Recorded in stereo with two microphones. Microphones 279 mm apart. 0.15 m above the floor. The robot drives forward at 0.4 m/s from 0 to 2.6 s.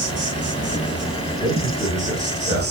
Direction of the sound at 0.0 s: 65° right (ahead or behind).